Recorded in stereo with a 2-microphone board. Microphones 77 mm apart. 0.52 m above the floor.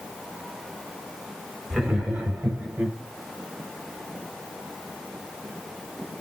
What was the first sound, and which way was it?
Laughter, 10° right (ahead or behind).